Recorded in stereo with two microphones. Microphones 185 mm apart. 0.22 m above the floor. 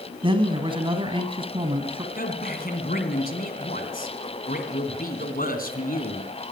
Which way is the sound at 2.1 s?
50° left (ahead or behind).